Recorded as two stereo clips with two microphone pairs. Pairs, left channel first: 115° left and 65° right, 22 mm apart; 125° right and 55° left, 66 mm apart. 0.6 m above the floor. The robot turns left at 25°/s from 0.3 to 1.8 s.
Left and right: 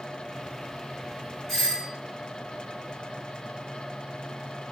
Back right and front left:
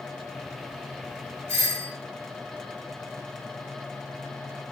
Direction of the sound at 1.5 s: 45° left.